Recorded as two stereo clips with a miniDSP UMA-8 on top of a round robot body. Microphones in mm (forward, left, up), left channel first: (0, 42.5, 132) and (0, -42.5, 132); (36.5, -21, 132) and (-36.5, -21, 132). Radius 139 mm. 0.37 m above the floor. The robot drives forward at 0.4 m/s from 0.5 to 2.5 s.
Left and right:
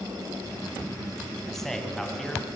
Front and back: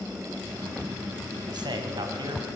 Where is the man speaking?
175° left, 3.5 m.